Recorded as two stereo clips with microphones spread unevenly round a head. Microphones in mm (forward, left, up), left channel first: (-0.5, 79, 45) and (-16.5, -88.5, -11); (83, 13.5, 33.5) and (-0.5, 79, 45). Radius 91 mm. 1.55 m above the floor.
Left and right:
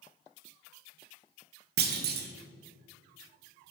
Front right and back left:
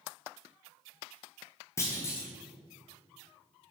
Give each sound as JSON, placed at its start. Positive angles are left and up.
{"t": 1.8, "sound": "a clunk", "azimuth_deg": -105, "distance_m": 0.8}